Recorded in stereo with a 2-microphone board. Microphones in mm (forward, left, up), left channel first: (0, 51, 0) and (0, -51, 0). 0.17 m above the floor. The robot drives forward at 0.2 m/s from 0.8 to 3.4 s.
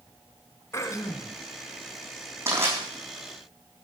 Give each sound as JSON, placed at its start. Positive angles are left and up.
{"t": 0.7, "sound": "throat clearing", "side_deg": 30, "distance_m": 1.1}
{"t": 2.5, "sound": "crushing", "side_deg": -25, "distance_m": 7.0}